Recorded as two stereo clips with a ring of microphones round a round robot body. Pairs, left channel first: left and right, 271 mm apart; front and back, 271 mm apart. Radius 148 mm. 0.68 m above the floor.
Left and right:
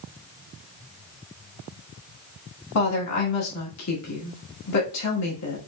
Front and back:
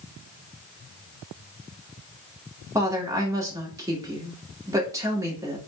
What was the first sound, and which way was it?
A woman speaking, 105° left.